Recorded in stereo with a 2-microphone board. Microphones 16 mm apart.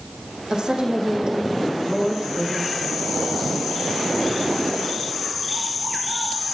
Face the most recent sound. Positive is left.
turn(degrees=-55)  # may be behind; listen again after turning